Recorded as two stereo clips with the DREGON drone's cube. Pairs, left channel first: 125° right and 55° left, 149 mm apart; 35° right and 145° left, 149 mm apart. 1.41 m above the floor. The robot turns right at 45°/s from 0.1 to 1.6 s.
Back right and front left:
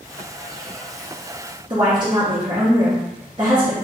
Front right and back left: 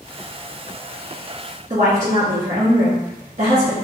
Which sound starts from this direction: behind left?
A woman speaking, at 1.7 s.